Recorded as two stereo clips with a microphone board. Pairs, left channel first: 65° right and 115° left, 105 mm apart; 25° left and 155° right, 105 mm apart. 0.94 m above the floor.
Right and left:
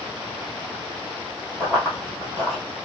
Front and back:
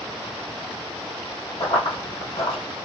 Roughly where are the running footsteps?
Ahead.